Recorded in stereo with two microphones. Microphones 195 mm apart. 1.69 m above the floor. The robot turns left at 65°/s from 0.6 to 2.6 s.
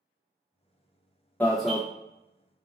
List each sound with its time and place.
1.4 s an alarm: 10° left (ahead or behind), 1.0 m; by 1.8 s 5° right (ahead or behind), 1.0 m